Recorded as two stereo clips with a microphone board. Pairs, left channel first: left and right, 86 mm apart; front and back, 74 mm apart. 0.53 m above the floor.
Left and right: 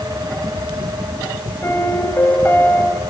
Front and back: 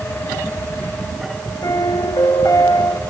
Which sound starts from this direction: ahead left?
A piano, at 1.6 s.